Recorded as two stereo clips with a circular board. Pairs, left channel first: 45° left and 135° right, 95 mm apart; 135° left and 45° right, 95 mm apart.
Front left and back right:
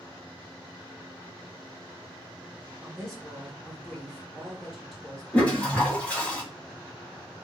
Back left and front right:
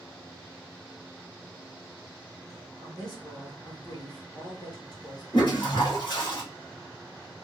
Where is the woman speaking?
135° left, 1.2 m.